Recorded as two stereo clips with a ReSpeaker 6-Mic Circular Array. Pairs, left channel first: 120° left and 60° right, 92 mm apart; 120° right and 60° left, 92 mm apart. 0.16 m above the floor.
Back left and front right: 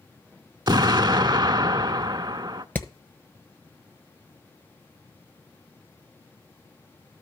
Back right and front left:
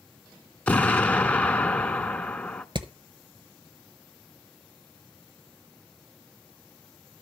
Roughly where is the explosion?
Ahead right.